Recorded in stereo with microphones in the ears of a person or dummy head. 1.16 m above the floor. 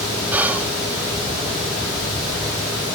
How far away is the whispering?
About 0.8 m.